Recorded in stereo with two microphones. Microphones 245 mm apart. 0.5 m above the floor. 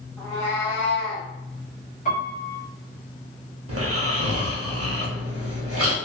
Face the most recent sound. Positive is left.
turn(degrees=-90)